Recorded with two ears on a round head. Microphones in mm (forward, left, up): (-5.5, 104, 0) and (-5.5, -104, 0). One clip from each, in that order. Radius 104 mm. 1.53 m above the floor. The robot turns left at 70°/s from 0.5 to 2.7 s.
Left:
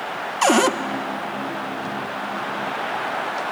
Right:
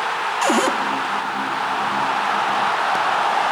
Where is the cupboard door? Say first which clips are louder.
Left 2 dB; 5° left (ahead or behind), 0.6 m; by 0.8 s centre (ahead or behind), 0.6 m.